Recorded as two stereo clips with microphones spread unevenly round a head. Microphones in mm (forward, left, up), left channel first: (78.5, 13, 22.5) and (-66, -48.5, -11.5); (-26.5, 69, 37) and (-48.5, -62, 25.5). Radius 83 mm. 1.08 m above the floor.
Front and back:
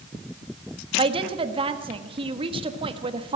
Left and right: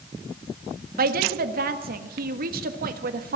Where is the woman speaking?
100° right, 1.3 m.